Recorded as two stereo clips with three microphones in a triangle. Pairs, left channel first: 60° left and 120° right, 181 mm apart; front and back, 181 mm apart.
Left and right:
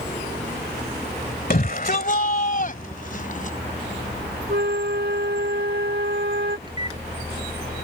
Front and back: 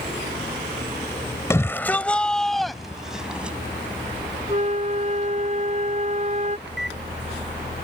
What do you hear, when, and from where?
1.5 s a shout: 70° left; by 3.6 s 95° left
4.5 s a flute: 130° right
6.7 s a microwave: 175° left